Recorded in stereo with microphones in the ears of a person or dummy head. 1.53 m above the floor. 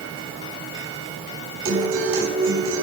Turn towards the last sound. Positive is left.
turn(degrees=-50)  # may be behind; listen again after turning